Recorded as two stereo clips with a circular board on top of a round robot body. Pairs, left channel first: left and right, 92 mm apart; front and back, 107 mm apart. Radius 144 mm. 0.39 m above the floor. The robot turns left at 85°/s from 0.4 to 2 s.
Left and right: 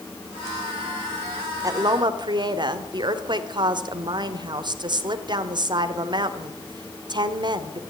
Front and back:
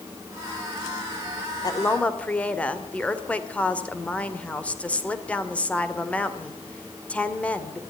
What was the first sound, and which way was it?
A woman speaking, 45° right.